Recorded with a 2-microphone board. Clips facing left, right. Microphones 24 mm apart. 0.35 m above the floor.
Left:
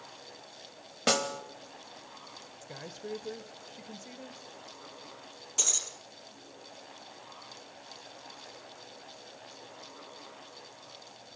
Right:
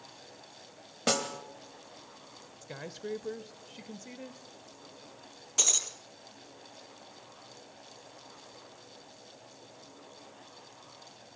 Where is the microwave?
No microwave in this recording.